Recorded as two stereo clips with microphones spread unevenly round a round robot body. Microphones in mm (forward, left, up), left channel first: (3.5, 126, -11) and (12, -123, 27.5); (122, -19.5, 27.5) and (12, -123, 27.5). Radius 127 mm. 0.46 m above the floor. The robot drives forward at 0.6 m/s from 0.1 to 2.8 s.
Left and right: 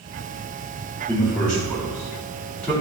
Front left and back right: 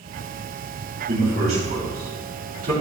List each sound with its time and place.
1.1 s a man speaking: 175° left, 3.5 m